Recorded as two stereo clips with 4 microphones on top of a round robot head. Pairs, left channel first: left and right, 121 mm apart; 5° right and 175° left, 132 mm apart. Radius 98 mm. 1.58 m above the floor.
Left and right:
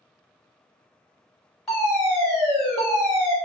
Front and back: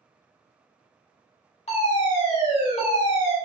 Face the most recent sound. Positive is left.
turn(degrees=10)